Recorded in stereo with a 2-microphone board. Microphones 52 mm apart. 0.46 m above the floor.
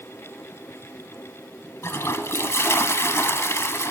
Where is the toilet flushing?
60° left (ahead or behind), 0.7 m.